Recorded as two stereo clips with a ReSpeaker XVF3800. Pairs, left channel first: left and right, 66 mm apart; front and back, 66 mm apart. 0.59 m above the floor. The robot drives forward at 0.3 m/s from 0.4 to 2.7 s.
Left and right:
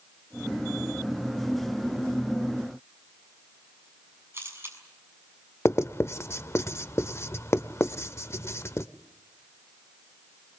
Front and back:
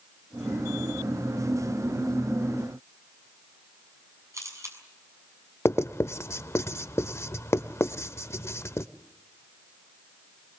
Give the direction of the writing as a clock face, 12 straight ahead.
11 o'clock.